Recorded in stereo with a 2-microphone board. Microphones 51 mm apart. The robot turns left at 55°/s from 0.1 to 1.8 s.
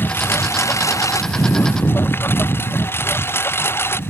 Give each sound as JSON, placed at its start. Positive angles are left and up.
{"t": 0.0, "sound": "a lawn mower", "side_deg": 40}